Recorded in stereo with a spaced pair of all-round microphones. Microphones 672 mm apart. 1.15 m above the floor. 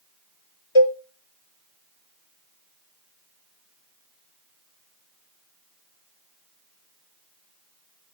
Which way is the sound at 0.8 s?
45° left (ahead or behind).